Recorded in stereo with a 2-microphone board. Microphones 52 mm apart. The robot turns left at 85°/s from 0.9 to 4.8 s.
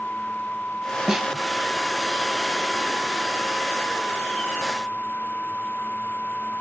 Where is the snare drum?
10° right (ahead or behind), 0.7 m; by 1.3 s centre (ahead or behind), 0.7 m.